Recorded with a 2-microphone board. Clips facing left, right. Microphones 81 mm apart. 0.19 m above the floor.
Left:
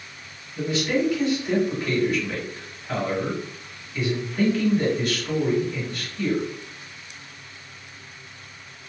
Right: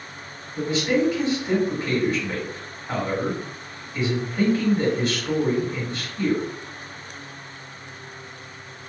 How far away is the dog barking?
No dog barking in this recording.